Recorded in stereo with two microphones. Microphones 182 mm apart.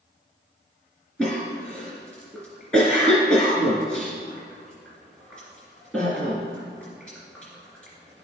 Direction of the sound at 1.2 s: 5° left (ahead or behind).